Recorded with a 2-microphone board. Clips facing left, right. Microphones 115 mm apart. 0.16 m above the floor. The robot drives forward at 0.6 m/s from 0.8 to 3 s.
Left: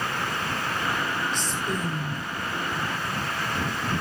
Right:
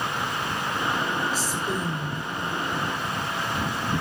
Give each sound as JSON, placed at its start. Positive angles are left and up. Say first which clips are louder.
{"t": 1.3, "sound": "a woman speaking", "louder": "right 1 dB", "side_deg": -5, "distance_m": 7.0}